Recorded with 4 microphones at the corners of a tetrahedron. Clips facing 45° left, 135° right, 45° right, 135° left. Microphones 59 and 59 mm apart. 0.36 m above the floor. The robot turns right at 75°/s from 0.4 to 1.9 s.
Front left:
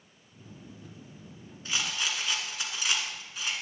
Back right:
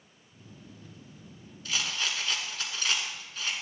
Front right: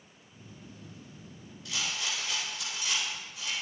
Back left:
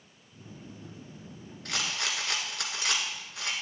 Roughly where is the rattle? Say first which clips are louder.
Even, back left 2 dB; left.